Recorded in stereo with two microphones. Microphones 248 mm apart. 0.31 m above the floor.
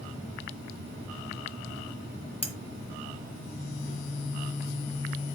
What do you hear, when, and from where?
2.4 s cutlery clinking: 20° left (ahead or behind), 0.5 m